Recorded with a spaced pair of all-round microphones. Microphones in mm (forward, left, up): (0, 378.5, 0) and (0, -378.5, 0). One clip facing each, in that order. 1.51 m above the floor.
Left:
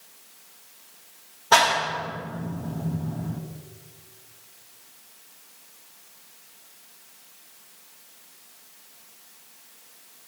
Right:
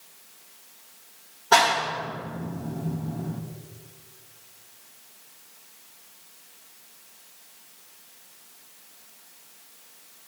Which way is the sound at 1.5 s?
15° left (ahead or behind).